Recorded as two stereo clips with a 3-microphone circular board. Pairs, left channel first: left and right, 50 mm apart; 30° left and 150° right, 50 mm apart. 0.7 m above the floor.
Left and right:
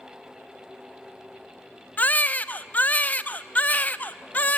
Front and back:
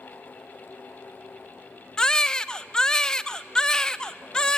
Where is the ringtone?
I don't hear a ringtone.